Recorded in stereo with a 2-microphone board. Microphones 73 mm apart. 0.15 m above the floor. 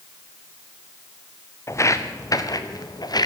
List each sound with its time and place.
1.7 s footsteps: 40° left (ahead or behind), 2 m; by 3.3 s 65° left (ahead or behind), 3 m